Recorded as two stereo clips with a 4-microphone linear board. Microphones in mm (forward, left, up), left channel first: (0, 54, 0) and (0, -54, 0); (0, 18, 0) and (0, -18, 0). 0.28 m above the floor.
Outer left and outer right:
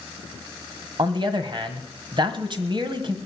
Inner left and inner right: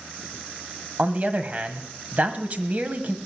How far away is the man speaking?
About 1.4 m.